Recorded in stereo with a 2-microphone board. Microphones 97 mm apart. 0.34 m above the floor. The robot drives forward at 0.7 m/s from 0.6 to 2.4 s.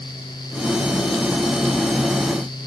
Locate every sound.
Only background noise.